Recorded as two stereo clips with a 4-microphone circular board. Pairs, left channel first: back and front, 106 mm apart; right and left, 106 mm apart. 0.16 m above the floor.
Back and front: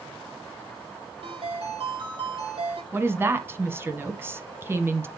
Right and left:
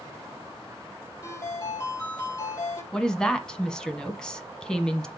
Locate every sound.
1.2 s a ringtone: 30° right, 4.5 m
2.9 s a woman speaking: 20° right, 1.0 m